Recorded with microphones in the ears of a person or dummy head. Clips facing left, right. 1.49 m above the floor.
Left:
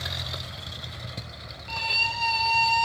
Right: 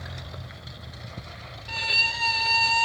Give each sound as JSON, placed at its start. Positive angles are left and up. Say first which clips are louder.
{"t": 1.7, "sound": "a violin", "louder": "left 2 dB", "side_deg": -20, "distance_m": 1.2}